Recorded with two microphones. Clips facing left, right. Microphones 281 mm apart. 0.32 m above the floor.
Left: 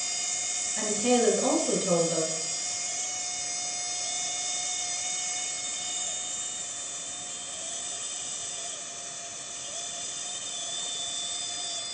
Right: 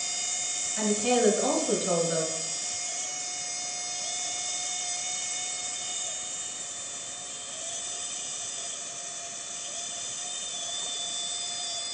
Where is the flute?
No flute in this recording.